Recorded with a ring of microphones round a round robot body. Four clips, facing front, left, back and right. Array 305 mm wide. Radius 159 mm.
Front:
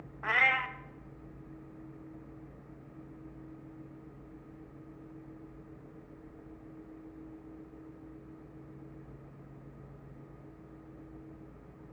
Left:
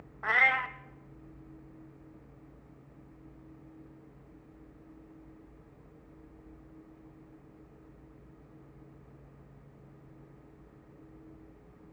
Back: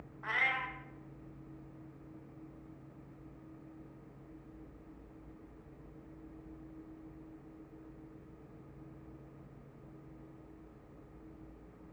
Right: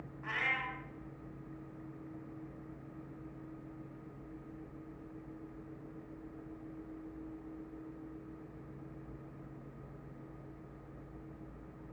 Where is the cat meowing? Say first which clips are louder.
Left 10 dB, front 6 dB; 55° left, 0.8 m.